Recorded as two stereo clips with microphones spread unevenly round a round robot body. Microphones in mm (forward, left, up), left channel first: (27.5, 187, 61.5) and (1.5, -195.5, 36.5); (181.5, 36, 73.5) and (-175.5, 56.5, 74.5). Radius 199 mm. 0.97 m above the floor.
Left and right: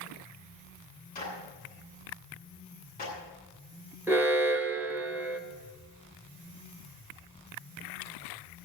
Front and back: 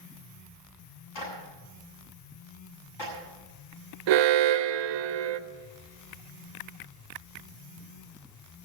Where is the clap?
15° left, 9 m.